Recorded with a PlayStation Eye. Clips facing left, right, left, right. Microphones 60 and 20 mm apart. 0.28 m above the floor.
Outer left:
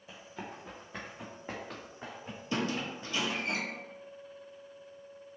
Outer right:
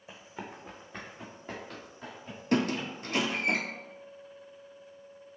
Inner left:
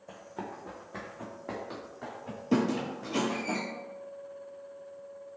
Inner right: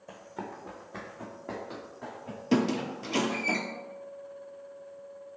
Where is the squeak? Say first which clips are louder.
Outer right 5 dB, inner right 1 dB; 55° right (ahead or behind), 0.5 m.